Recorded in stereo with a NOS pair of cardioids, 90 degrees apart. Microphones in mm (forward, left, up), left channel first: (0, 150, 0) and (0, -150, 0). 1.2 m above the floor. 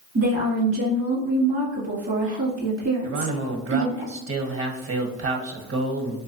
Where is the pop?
No pop in this recording.